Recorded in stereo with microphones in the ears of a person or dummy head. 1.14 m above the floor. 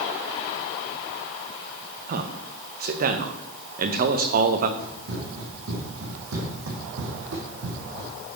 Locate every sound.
2.1 s a man speaking: 50° right (ahead or behind), 0.9 m
4.8 s running footsteps: 65° right (ahead or behind), 4.5 m